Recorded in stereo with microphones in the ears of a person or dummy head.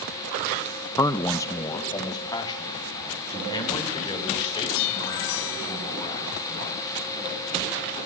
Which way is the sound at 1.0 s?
10° left (ahead or behind).